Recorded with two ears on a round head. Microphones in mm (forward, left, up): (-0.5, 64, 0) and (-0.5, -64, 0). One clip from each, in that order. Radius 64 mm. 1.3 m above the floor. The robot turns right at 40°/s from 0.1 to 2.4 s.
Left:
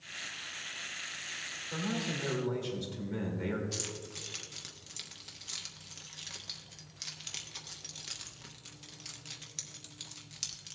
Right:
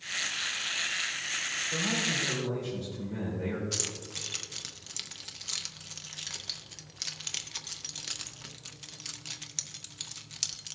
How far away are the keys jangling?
About 0.6 m.